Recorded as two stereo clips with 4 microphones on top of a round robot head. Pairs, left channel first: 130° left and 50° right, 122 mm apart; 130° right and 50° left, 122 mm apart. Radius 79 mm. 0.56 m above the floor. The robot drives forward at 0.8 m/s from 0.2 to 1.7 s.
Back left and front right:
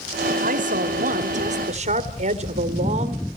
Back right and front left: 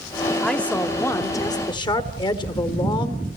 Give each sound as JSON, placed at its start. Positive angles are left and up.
{"t": 0.4, "sound": "a woman speaking", "azimuth_deg": -45, "distance_m": 2.0}